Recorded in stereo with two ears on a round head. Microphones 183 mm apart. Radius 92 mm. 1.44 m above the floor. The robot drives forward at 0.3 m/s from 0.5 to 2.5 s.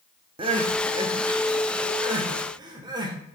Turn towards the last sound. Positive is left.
turn(degrees=-20)  # may be behind; listen again after turning